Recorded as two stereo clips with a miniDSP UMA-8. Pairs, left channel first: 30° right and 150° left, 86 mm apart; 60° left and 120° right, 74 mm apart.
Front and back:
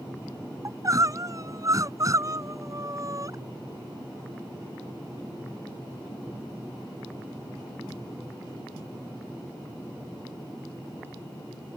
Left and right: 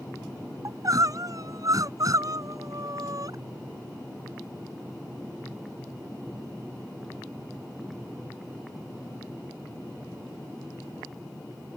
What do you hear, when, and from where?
0.7 s crying: 160° right